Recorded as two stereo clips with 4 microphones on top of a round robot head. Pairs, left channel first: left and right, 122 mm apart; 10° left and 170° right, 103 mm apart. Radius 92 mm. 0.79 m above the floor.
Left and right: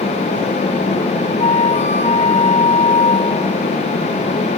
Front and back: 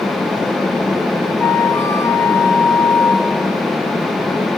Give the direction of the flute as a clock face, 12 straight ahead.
10 o'clock.